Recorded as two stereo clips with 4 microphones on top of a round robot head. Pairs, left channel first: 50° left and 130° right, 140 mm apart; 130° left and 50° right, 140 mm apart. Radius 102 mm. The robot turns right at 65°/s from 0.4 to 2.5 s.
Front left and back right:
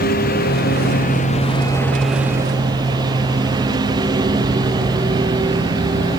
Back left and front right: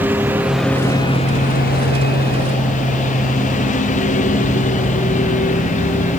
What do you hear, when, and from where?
0.0 s a lawn mower: 30° left; by 6.2 s 165° left